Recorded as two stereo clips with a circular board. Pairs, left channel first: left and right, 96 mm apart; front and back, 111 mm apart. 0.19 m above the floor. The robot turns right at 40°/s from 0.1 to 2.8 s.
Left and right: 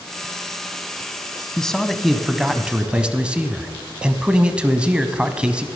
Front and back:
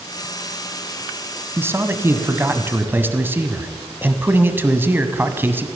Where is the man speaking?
160° left, 1.1 m; by 5.7 s 150° right, 1.1 m.